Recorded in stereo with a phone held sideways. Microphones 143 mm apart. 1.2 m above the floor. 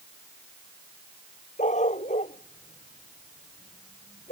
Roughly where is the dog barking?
Left.